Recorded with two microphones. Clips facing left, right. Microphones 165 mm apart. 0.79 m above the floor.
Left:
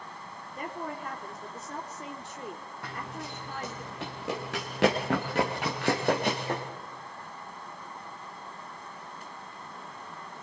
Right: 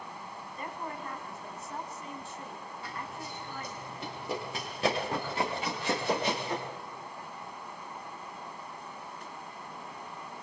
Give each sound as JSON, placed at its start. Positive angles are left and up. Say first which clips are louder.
{"t": 0.6, "sound": "a woman speaking", "louder": "left 3 dB", "side_deg": 70, "distance_m": 2.5}
{"t": 2.8, "sound": "running footsteps", "louder": "left 3 dB", "side_deg": 65, "distance_m": 3.5}